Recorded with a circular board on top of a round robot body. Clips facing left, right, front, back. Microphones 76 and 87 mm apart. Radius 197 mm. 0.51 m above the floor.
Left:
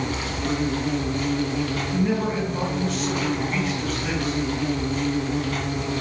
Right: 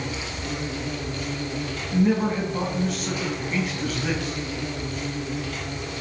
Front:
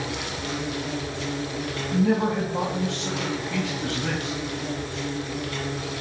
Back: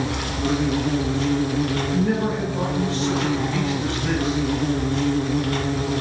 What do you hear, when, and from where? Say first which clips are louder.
0.0 s an insect: left 5 dB, back 6 dB; 135° left, 1.1 m
1.9 s a man speaking: right 4 dB, front 3 dB; 15° right, 4.5 m